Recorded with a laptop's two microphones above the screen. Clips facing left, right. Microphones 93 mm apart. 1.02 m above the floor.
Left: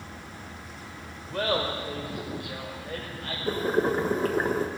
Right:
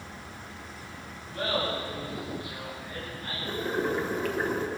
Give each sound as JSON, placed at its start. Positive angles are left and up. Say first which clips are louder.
{"t": 1.3, "sound": "laughter", "louder": "left 2 dB", "side_deg": 85, "distance_m": 3.5}
{"t": 3.5, "sound": "boiling", "louder": "left 5 dB", "side_deg": 40, "distance_m": 1.0}